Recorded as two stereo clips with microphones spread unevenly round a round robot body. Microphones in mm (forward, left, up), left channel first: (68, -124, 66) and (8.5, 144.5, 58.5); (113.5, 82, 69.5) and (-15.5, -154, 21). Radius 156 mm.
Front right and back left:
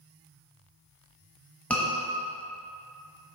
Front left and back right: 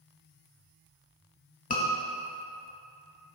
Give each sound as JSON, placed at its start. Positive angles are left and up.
{"t": 1.7, "sound": "a scream", "azimuth_deg": 10, "distance_m": 1.1}